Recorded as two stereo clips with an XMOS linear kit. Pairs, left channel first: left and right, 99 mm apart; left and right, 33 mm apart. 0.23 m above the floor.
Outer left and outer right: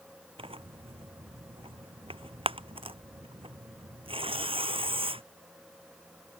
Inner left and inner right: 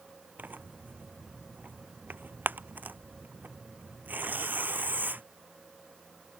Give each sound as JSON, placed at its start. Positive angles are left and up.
{"t": 0.4, "sound": "tearing paper", "side_deg": -70}